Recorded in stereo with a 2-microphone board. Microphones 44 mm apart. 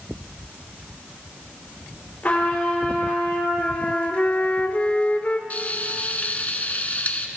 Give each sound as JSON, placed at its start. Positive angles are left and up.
{"t": 2.2, "sound": "a trumpet", "side_deg": 40, "distance_m": 5.0}
{"t": 3.6, "sound": "a flute", "side_deg": 35, "distance_m": 0.8}
{"t": 5.5, "sound": "frying", "side_deg": 40, "distance_m": 1.0}